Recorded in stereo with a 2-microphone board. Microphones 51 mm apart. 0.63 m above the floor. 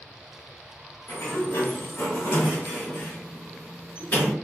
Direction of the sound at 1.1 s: 45° left (ahead or behind).